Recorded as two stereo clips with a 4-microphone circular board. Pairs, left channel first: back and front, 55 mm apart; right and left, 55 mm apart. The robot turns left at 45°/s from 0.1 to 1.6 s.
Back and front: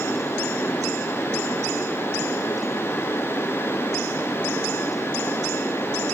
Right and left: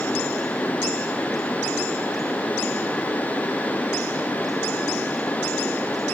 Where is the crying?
I don't hear crying.